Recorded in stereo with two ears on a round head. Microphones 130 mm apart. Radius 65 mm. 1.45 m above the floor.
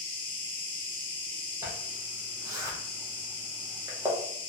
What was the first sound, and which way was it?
An insect, 15° left (ahead or behind).